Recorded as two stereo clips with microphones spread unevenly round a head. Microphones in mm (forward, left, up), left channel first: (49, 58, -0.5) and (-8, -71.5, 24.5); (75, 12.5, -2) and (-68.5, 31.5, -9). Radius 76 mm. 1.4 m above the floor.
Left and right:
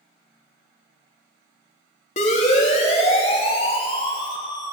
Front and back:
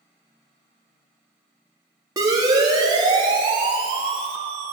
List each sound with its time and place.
2.2 s a siren: 105° left, 4.5 m; by 4.7 s 130° left, 2.5 m